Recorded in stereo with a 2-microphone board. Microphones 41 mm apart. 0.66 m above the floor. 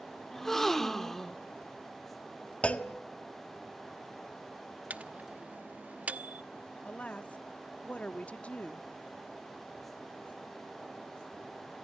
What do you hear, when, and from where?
0.3 s a gasp: 10° left (ahead or behind), 1.3 m
2.6 s a clunk: 35° left (ahead or behind), 1.5 m
4.9 s a microwave: 40° right (ahead or behind), 0.9 m
6.8 s a woman speaking: 35° left (ahead or behind), 1.1 m